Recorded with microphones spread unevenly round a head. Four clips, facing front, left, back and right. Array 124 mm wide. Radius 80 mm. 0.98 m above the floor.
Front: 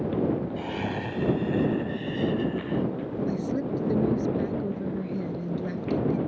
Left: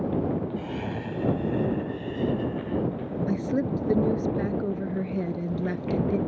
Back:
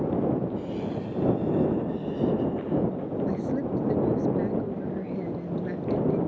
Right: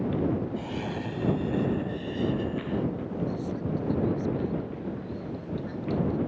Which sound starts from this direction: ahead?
Laughter, at 0.6 s.